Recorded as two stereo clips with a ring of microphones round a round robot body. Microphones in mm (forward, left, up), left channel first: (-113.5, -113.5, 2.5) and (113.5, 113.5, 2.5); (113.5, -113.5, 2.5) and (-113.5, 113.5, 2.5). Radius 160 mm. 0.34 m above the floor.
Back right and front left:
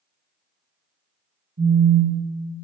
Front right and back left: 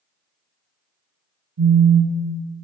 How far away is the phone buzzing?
About 0.6 m.